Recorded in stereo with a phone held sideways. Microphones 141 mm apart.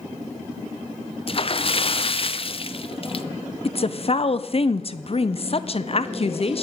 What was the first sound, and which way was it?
A splash, 45° left (ahead or behind).